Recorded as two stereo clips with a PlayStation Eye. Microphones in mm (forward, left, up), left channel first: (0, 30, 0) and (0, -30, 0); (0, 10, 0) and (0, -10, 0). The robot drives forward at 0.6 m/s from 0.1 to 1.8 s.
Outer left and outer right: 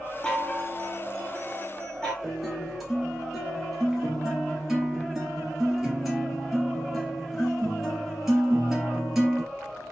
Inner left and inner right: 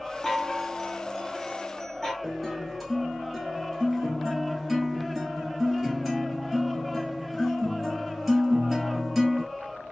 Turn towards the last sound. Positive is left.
turn(degrees=-5)  # may be behind; listen again after turning